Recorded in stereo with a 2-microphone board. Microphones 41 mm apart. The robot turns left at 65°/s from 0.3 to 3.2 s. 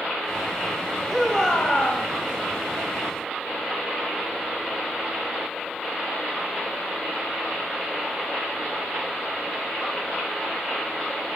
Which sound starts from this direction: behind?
A shout, at 1.1 s.